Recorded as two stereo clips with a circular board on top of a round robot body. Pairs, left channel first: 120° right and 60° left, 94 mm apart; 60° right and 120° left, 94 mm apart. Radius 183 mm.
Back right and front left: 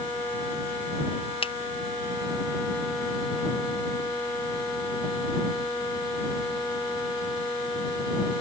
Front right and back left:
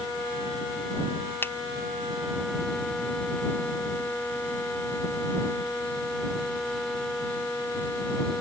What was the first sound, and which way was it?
A finger snap, 125° right.